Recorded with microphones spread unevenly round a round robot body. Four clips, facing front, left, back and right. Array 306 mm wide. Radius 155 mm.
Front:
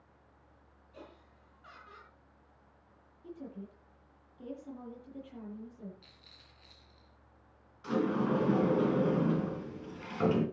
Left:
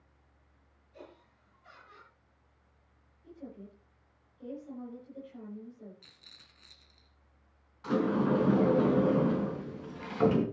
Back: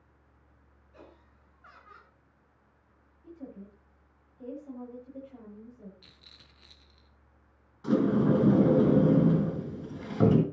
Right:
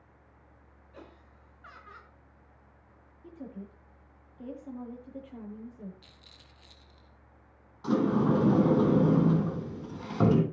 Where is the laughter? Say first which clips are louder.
Right 1 dB, front 1 dB; 75° right, 5.5 m.